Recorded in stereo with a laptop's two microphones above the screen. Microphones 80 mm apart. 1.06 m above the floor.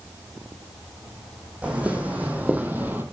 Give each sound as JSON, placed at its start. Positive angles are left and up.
{"t": 1.6, "sound": "footsteps", "side_deg": -15, "distance_m": 2.5}